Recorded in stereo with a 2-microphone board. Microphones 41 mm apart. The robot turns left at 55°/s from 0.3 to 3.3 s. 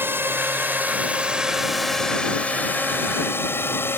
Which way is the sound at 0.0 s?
60° right (ahead or behind).